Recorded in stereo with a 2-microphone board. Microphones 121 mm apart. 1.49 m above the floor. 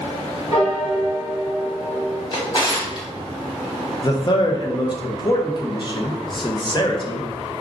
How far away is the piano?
About 1.3 m.